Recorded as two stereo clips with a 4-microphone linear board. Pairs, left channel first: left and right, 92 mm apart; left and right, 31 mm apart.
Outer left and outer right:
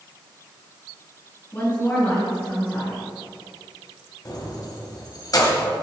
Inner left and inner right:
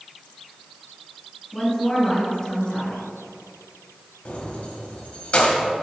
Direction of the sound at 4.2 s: 45° left (ahead or behind).